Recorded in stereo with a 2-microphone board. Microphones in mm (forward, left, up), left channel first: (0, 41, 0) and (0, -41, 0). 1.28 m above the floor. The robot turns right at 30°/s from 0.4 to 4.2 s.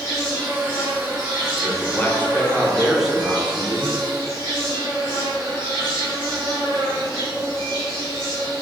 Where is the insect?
150° left, 1.5 m; by 8.6 s 95° right, 1.5 m.